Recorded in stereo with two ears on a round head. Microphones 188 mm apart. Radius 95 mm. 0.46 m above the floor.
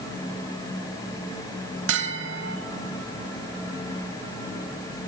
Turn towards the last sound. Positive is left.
turn(degrees=-55)  # may be behind; listen again after turning